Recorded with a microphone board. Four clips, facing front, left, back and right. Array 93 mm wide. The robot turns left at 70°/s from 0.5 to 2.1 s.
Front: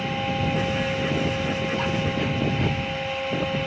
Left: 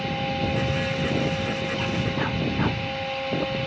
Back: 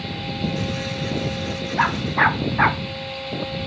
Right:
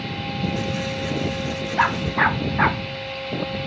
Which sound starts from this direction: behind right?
A dog barking, at 1.8 s.